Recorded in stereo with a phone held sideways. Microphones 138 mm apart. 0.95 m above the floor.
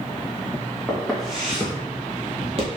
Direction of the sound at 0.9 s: 5° left (ahead or behind).